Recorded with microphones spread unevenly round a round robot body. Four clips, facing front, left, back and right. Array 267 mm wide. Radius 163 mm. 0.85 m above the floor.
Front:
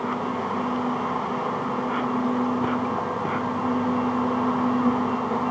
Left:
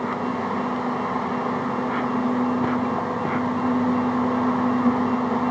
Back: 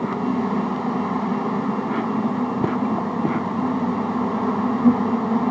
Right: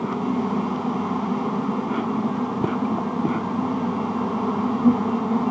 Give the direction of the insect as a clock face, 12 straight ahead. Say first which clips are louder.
Right 1 dB, back 4 dB; 5 o'clock.